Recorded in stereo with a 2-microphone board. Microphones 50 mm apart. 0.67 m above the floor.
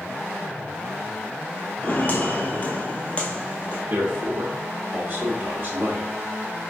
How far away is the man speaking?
About 0.7 m.